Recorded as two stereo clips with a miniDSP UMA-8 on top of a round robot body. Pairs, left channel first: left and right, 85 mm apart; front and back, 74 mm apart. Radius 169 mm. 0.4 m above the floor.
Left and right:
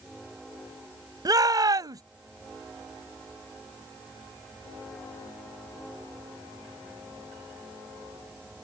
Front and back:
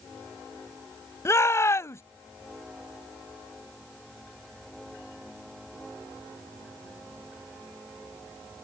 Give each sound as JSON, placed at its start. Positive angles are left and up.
{"t": 1.2, "sound": "a shout", "azimuth_deg": -50}